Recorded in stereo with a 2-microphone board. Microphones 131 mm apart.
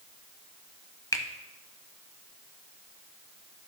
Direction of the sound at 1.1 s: 25° left (ahead or behind).